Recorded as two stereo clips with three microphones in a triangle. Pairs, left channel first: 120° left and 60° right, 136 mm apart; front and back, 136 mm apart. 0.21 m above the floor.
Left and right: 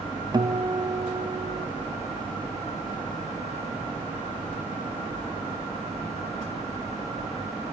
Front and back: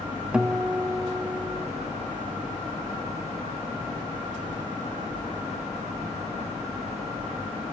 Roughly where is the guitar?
Right.